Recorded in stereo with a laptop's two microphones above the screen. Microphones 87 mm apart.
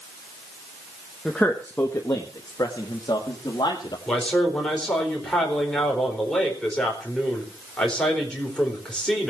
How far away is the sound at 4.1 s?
About 4 m.